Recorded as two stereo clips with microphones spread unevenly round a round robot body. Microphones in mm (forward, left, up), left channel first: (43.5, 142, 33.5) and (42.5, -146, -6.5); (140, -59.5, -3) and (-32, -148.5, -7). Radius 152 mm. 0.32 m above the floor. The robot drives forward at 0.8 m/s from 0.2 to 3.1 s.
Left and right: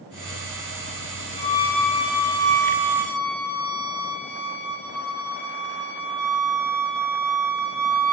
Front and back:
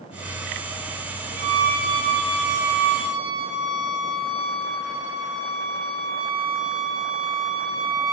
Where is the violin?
160° left, 0.8 m; by 8.1 s 175° left, 2 m.